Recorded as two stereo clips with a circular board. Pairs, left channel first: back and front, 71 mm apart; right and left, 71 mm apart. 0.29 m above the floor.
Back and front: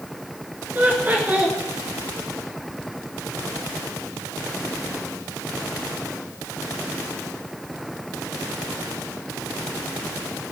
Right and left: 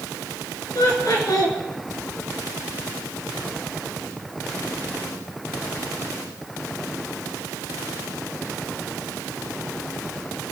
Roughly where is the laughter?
Ahead right.